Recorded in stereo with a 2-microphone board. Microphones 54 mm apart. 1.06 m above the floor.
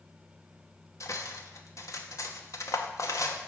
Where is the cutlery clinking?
75° left (ahead or behind), 0.8 m.